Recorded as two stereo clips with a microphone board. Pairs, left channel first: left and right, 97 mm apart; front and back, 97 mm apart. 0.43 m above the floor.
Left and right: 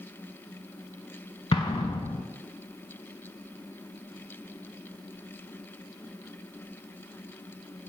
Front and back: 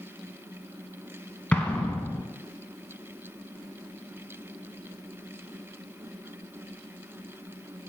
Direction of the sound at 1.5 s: 75° left.